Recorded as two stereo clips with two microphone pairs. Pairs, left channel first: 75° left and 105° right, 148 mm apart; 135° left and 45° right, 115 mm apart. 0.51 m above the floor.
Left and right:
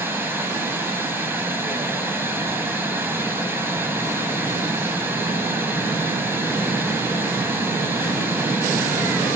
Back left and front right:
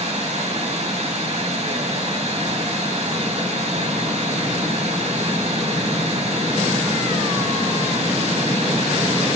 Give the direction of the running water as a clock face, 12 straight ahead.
1 o'clock.